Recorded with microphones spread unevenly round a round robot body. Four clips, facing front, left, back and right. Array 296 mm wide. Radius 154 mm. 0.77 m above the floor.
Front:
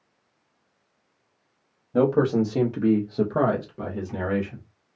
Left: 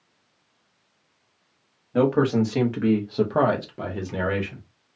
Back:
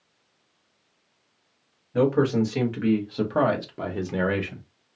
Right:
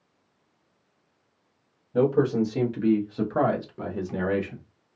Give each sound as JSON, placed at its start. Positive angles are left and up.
{"t": 1.9, "sound": "a man speaking", "azimuth_deg": 30, "distance_m": 1.3}